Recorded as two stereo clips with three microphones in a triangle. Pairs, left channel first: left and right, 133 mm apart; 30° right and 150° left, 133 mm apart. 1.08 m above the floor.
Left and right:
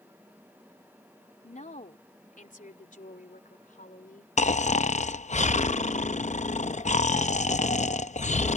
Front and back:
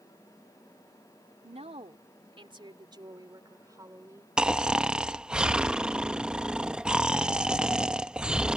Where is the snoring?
65° left.